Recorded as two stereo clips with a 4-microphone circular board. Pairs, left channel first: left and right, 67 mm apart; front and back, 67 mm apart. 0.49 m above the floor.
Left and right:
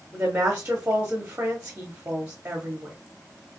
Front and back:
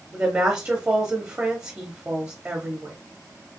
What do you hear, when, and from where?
0.1 s a woman speaking: 130° right, 0.8 m